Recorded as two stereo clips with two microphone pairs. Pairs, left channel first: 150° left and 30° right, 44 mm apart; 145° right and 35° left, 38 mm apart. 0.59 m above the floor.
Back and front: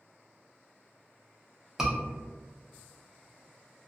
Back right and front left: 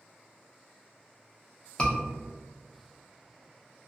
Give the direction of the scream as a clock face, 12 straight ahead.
3 o'clock.